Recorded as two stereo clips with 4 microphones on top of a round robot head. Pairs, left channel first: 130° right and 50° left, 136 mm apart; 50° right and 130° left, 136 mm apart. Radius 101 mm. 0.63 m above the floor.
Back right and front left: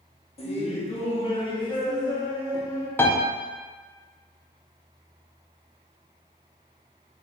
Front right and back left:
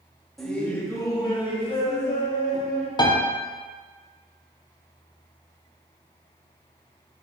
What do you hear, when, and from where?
0.4 s laughter: 135° right, 1.0 m; by 2.9 s 65° right, 1.7 m
3.0 s a piano: 65° right, 0.7 m